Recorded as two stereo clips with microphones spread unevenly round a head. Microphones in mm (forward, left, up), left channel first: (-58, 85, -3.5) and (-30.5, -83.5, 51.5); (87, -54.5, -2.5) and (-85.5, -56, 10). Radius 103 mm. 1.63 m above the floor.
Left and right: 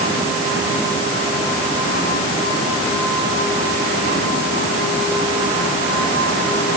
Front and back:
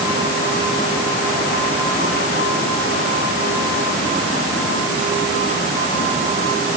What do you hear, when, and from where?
Only background noise.